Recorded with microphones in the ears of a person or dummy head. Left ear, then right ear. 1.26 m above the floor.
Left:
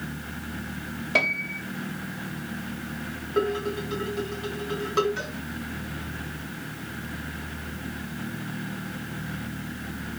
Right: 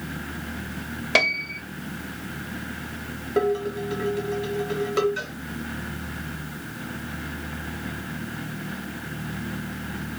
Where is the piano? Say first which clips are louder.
Right 3 dB; 40° right (ahead or behind), 0.7 m.